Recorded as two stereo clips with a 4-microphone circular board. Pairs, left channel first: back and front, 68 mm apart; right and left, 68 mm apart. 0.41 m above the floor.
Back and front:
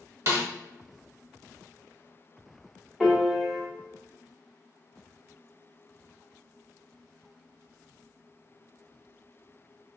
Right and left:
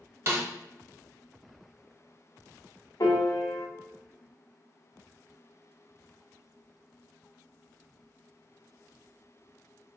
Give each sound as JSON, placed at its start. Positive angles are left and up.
{"t": 0.3, "sound": "a snare drum", "azimuth_deg": 40, "distance_m": 1.1}
{"t": 3.0, "sound": "a piano", "azimuth_deg": -95, "distance_m": 1.0}